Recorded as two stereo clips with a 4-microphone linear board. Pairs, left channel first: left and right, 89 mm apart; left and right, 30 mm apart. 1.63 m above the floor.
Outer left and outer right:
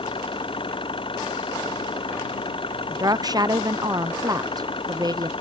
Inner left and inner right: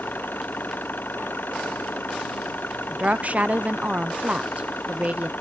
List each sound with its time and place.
0.0 s an engine running: 75° left (ahead or behind)
2.9 s a woman speaking: 45° right (ahead or behind)